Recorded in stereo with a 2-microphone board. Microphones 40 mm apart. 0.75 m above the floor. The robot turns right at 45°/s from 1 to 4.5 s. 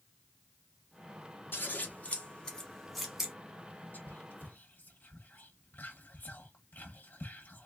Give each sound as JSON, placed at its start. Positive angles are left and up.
{"t": 1.5, "sound": "scissors", "side_deg": 60, "distance_m": 1.2}
{"t": 3.9, "sound": "whispering", "side_deg": 50, "distance_m": 0.9}